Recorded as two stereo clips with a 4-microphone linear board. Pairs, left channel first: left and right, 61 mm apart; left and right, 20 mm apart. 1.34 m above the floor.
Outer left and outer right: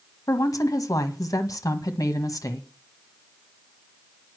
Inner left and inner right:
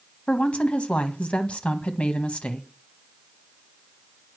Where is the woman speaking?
80° left, 1.5 m.